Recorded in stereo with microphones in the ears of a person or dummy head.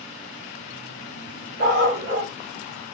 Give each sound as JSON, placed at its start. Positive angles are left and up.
{"t": 1.6, "sound": "a dog barking", "side_deg": -50, "distance_m": 1.5}